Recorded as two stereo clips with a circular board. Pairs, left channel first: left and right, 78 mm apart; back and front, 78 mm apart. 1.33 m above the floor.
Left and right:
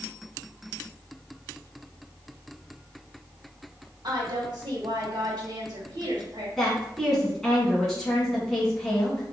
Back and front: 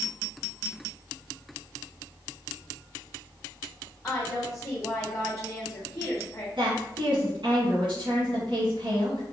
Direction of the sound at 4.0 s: 120° right.